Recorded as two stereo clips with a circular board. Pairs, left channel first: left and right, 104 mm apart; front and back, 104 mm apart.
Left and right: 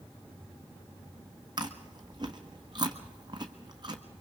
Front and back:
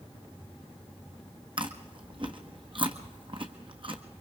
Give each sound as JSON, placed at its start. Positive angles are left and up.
{"t": 1.6, "sound": "chewing", "azimuth_deg": -140, "distance_m": 1.4}